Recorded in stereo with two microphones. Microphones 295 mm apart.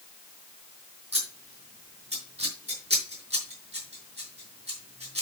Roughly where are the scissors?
Right.